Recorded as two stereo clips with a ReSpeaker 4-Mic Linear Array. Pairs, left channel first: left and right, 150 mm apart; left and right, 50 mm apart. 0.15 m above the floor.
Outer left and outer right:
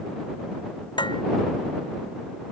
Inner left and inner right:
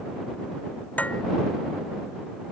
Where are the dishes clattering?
30° left (ahead or behind).